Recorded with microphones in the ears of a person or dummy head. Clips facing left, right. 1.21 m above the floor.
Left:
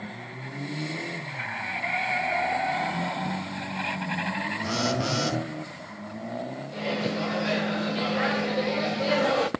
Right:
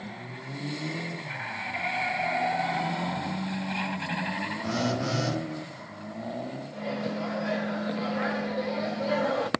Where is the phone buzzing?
60° left (ahead or behind), 1.9 m.